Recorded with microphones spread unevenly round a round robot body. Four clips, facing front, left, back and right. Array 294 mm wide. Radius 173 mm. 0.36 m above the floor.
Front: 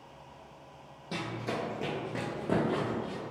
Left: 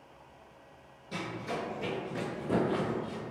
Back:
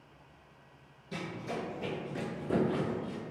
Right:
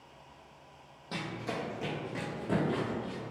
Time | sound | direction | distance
1.1 | running footsteps | 20° right | 0.9 m